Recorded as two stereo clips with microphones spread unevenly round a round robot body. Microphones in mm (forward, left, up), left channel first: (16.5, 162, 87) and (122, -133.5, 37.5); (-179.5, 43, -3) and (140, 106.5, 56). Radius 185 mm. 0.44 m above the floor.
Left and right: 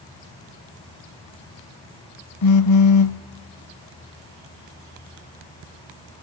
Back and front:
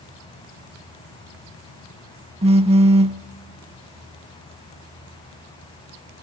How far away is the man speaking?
No man speaking in this recording.